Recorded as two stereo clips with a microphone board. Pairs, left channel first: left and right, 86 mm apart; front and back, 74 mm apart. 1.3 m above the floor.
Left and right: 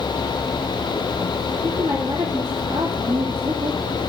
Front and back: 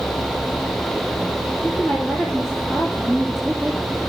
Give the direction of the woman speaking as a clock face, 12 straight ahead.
3 o'clock.